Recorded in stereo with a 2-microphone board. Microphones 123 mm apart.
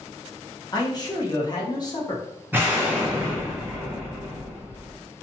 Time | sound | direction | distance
0.7 | a man speaking | 35° left (ahead or behind) | 0.8 m
2.5 | an explosion | 15° right (ahead or behind) | 0.8 m